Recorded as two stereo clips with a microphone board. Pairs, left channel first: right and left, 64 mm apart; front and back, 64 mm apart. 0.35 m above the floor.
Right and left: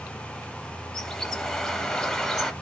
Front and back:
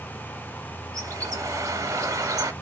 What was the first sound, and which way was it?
A bird, 170° right.